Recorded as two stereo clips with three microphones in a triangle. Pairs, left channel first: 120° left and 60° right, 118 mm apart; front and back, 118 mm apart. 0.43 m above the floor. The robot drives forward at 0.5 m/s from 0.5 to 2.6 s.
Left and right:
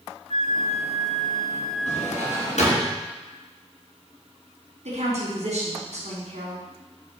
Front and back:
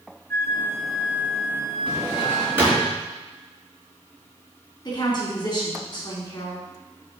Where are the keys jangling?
No keys jangling in this recording.